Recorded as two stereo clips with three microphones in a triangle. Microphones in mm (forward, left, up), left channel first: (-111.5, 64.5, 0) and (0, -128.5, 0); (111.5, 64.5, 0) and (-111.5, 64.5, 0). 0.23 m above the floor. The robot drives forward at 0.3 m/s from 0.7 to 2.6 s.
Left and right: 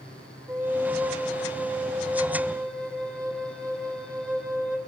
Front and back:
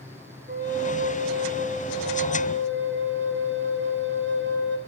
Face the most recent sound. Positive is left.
turn(degrees=-150)